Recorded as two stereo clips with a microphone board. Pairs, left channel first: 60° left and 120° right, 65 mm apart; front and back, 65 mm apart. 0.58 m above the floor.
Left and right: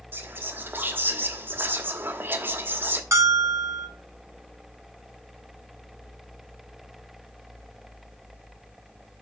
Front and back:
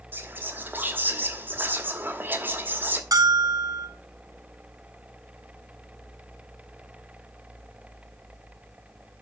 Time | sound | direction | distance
0.1 | whispering | 145° right | 1.1 m
3.1 | a bell | 165° right | 1.1 m